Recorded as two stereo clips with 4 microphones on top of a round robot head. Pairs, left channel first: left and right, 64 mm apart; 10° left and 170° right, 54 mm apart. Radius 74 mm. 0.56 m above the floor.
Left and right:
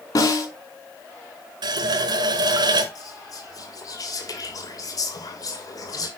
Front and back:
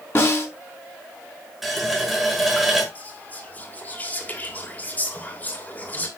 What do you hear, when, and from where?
0.1 s a snare drum: 50° left, 4 m
1.6 s a running tap: 85° right, 1.6 m
3.0 s whispering: 65° left, 2.5 m